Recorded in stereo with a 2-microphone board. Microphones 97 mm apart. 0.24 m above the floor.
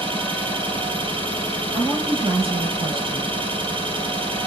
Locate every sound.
0.0 s an engine running: 65° right (ahead or behind), 3.5 m
1.7 s a woman speaking: 70° right (ahead or behind), 3.5 m